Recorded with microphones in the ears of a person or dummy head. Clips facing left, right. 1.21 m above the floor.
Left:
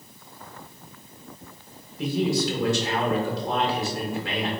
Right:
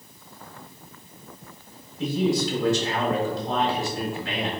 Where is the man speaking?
55° left (ahead or behind), 1.4 m.